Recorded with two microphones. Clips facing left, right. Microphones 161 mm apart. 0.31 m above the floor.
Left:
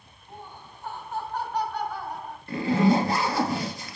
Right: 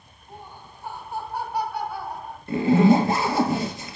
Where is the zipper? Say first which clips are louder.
Right 5 dB; 25° right (ahead or behind), 1.9 m.